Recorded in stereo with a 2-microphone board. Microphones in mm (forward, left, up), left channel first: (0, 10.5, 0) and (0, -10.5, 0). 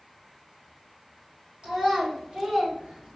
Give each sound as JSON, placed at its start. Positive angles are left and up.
{"t": 1.6, "sound": "a child speaking", "side_deg": -50, "distance_m": 2.5}